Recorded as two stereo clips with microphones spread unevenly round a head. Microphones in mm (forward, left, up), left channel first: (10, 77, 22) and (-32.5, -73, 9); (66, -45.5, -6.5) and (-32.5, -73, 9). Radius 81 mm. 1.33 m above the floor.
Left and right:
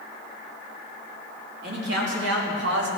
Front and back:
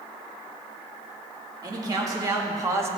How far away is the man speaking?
About 3.5 m.